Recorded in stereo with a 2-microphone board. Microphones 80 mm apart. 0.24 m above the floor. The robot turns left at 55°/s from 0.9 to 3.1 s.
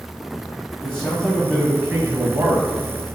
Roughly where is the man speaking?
Ahead.